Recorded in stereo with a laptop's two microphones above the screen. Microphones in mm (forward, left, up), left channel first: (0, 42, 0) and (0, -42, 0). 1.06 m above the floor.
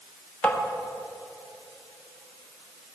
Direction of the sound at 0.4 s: 15° left (ahead or behind).